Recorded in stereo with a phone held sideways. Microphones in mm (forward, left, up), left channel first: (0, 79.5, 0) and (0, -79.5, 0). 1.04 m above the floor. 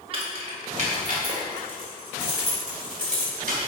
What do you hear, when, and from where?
0.1 s keys jangling: 35° right (ahead or behind), 1.4 m; by 3.6 s 55° right (ahead or behind), 4 m